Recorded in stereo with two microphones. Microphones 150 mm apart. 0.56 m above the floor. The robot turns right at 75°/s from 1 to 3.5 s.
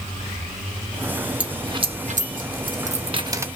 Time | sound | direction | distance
1.4 | a dropped coin | 10° right (ahead or behind) | 0.6 m